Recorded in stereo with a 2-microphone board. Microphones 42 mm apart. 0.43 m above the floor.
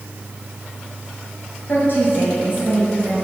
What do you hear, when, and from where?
1.7 s a woman speaking: 50° left (ahead or behind), 3 m; by 3.1 s 35° left (ahead or behind), 3 m